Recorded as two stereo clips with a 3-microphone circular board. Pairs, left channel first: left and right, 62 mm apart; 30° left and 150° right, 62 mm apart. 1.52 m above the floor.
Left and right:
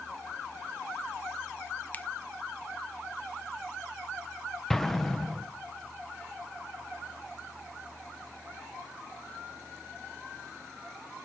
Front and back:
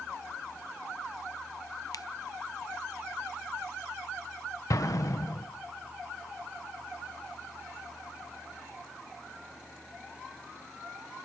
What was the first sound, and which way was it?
A finger snap, 30° left.